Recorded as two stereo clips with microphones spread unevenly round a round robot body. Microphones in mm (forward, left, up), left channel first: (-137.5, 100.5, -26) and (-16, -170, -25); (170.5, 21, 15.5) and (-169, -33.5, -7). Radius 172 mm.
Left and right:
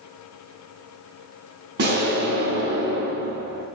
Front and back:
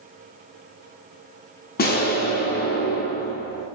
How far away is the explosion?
About 0.8 m.